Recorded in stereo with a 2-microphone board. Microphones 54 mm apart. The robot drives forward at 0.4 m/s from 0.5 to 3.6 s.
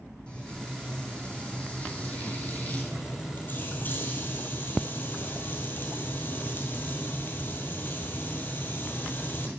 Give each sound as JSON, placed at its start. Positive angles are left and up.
{"t": 0.3, "sound": "frying", "side_deg": 20, "distance_m": 2.5}